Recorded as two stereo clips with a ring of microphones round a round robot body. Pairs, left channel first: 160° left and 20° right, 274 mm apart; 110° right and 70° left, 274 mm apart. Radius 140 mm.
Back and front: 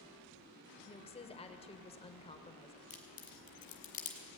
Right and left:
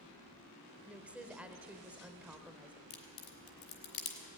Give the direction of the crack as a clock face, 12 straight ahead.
5 o'clock.